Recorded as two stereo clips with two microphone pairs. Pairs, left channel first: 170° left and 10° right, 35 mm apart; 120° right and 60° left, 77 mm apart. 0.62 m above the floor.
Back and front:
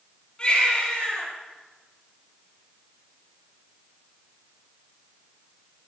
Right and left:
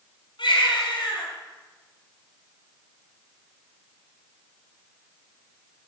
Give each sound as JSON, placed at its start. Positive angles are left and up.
{"t": 0.4, "sound": "a baby crying", "azimuth_deg": -130, "distance_m": 5.0}